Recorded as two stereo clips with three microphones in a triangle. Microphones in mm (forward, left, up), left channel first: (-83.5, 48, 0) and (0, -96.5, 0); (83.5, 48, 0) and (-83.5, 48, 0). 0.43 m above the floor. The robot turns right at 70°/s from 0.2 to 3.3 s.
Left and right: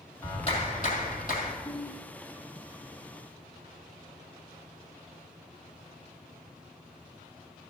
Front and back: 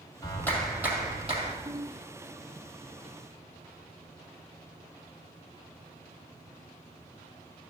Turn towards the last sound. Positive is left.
turn(degrees=-75)